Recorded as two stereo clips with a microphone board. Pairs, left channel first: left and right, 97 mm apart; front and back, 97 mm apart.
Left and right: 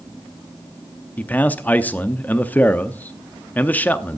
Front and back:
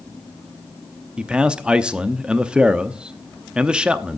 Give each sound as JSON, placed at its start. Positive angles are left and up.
{"t": 1.2, "sound": "a man speaking", "azimuth_deg": 120, "distance_m": 0.6}